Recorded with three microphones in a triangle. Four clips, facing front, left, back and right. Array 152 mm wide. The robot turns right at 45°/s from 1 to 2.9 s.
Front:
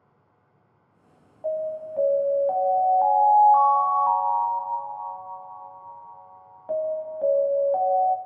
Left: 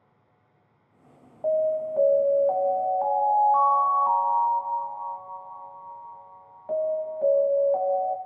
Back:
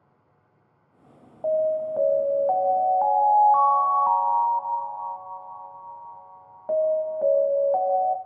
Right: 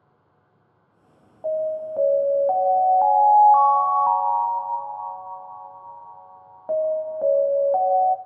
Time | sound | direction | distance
1.4 | an alarm | 165° left | 0.9 m